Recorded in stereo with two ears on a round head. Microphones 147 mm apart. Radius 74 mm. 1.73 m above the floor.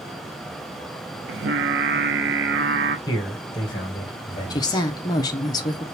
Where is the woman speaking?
25° left (ahead or behind), 0.6 m.